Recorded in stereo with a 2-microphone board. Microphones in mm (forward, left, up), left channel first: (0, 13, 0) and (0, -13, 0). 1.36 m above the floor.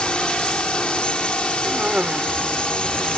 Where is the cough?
50° right (ahead or behind).